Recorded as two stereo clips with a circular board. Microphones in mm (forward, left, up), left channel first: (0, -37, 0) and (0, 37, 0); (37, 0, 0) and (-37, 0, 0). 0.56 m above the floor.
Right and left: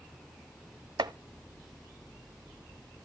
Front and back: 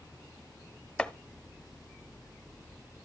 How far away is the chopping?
About 0.6 m.